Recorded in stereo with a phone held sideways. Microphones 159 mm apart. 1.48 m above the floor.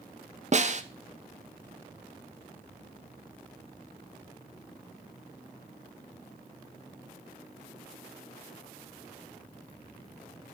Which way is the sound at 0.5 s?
45° right (ahead or behind).